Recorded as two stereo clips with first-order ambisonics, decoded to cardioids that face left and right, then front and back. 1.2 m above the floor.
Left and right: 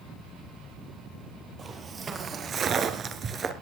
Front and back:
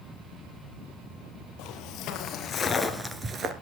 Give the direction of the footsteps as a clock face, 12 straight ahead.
1 o'clock.